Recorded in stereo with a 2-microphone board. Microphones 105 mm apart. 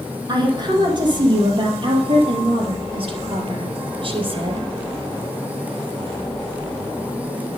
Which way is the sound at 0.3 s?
40° right (ahead or behind).